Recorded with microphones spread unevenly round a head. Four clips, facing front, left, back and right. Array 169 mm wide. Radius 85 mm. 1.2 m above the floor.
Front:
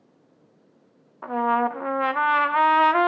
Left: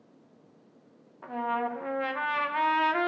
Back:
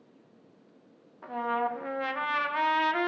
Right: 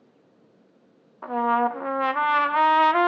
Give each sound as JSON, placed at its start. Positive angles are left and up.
{"t": 1.2, "sound": "a trumpet", "azimuth_deg": -40, "distance_m": 0.6}